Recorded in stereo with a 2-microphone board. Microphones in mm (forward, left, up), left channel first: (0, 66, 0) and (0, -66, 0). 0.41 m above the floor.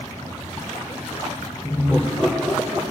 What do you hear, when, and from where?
1.6 s laughter: 10° left (ahead or behind), 0.9 m; by 2.8 s 25° right (ahead or behind), 1.4 m